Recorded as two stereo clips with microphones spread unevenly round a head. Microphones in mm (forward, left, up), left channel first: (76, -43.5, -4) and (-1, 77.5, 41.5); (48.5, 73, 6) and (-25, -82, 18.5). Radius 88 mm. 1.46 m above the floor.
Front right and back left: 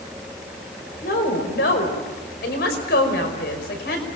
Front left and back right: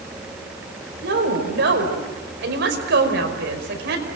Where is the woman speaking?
95° right, 5.5 m.